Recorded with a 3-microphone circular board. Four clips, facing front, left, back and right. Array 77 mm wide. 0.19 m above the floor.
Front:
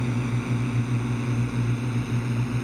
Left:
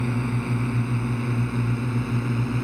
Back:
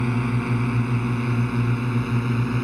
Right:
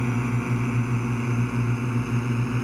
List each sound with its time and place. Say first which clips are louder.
0.0 s a drone: even, back 4 dB; 165° right; by 2.6 s 170° right